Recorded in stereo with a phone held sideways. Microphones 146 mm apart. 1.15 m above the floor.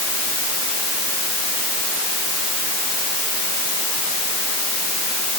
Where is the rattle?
No rattle in this recording.